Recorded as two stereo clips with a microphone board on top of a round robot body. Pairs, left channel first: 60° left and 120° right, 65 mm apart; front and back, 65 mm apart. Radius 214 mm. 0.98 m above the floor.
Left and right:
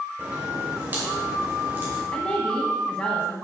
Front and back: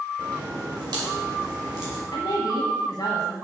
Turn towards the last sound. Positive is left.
turn(degrees=-10)